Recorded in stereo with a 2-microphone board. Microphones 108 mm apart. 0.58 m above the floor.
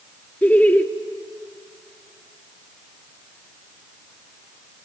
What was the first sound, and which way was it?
Laughter, 15° left (ahead or behind).